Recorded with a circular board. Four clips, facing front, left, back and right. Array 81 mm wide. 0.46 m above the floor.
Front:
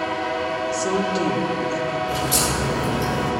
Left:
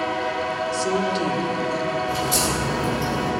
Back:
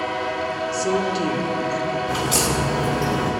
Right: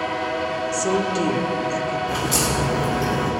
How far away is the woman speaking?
About 1.1 m.